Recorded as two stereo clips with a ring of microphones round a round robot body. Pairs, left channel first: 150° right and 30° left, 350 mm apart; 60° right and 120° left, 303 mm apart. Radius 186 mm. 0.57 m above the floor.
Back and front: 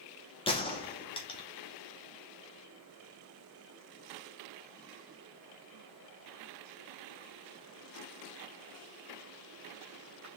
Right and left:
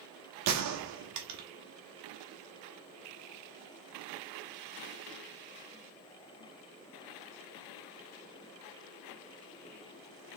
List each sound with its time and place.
0.5 s a gunshot: 135° left, 1.1 m